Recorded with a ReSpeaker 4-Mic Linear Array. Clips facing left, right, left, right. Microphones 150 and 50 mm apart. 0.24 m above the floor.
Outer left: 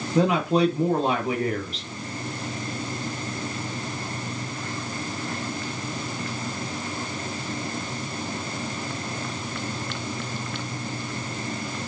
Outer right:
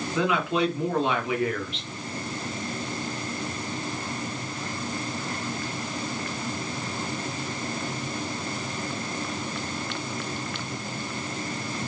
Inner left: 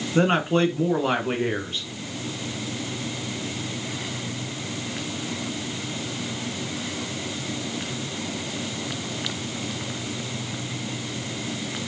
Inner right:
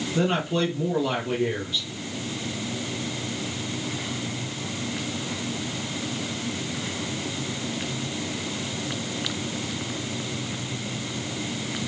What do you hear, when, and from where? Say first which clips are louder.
0.1 s a man speaking: outer left 5 dB, inner left 4 dB; 40° left (ahead or behind), 3 m